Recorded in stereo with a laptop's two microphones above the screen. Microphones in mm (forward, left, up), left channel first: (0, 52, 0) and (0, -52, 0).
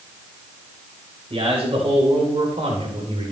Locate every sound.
1.3 s a man speaking: 75° right (ahead or behind), 4 m